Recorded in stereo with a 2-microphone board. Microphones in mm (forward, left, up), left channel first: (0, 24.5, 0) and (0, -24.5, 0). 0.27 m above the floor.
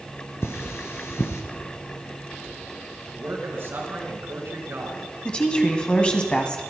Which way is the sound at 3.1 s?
55° right (ahead or behind).